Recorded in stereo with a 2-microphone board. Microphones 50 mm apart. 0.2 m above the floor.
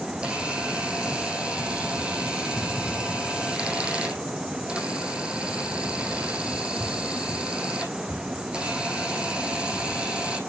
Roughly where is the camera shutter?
Centre.